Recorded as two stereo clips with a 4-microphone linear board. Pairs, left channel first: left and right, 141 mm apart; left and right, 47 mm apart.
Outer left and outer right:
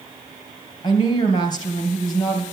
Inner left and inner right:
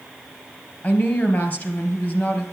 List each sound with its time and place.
0.8 s a woman speaking: 30° left (ahead or behind), 2.5 m